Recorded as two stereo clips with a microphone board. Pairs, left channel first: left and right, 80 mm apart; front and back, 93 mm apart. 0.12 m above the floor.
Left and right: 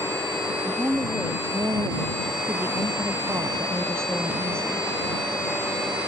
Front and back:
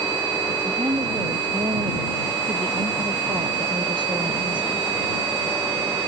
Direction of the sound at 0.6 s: 150° right.